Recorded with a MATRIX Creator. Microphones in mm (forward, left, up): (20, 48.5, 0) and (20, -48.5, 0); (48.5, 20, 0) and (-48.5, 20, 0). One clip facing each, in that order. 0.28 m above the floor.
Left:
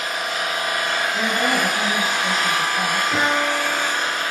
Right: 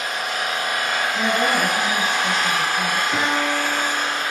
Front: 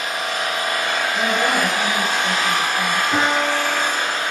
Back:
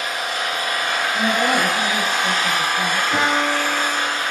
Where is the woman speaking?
60° left, 1.0 m.